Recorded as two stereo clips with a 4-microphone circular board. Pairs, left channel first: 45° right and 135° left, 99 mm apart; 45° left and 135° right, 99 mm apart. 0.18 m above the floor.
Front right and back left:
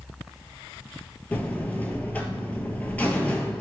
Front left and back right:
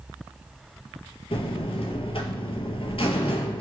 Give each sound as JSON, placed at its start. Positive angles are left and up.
{"t": 1.3, "sound": "a buzzer", "azimuth_deg": 30, "distance_m": 0.6}